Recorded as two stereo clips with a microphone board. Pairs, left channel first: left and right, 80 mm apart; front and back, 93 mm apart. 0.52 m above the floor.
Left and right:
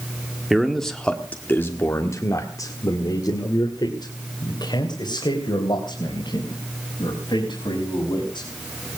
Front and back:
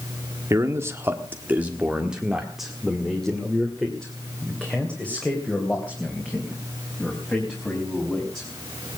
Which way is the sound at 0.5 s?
175° right.